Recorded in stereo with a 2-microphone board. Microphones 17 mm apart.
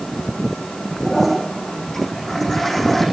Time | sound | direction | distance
1.1 | a toilet flushing | 15° left (ahead or behind) | 9.5 m